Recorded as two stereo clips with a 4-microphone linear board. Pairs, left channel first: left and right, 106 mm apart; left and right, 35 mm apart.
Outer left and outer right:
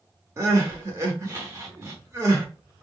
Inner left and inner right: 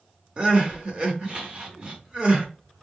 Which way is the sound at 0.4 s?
30° right (ahead or behind).